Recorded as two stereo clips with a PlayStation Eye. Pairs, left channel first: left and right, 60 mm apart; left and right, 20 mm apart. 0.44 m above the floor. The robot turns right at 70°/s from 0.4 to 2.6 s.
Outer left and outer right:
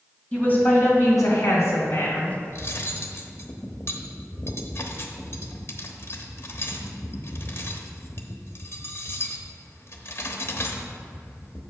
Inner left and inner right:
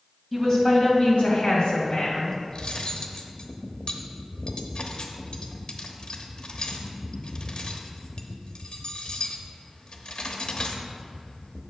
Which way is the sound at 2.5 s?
50° left (ahead or behind).